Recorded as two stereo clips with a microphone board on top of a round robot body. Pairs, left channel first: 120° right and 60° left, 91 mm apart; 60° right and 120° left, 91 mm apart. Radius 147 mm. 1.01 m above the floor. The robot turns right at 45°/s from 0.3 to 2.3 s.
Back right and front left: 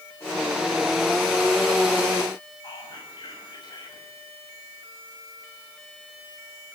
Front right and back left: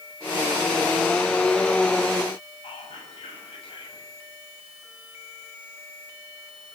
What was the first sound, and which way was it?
Whispering, 80° right.